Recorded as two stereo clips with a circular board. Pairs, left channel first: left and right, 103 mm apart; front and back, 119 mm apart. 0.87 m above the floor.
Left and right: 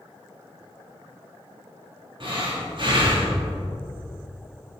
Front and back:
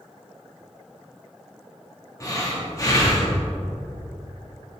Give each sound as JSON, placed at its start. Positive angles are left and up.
{"t": 2.2, "sound": "breathing", "azimuth_deg": -60, "distance_m": 1.6}